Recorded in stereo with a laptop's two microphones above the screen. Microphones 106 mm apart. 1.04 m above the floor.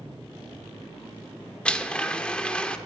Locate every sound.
1.6 s a blender: 10° left (ahead or behind), 0.7 m